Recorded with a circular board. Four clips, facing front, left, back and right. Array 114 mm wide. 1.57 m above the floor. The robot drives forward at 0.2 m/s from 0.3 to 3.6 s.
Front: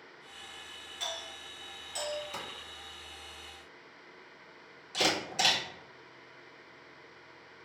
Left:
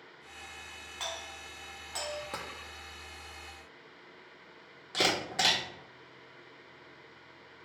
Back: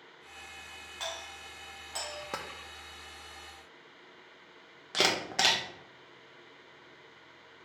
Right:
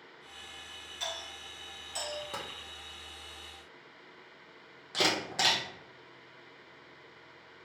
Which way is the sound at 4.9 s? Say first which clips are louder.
Even, back 1 dB; straight behind.